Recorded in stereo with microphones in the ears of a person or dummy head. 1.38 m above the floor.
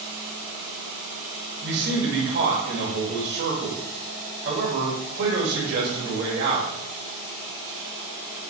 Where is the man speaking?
55° right (ahead or behind), 3 m.